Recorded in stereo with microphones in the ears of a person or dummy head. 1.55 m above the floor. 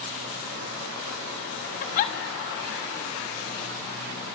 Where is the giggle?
45° left (ahead or behind), 1.3 m.